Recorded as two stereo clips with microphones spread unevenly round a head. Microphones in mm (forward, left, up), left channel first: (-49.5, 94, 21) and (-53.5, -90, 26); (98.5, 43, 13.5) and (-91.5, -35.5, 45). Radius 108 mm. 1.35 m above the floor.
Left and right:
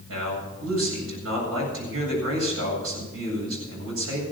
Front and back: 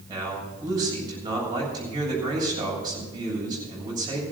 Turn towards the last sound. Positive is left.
turn(degrees=-85)